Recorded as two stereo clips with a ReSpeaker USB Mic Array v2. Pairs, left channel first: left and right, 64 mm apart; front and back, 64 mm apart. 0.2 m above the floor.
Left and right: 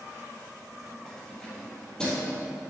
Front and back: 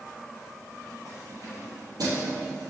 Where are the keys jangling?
175° left, 3.5 m; by 2.3 s 170° left, 4.5 m.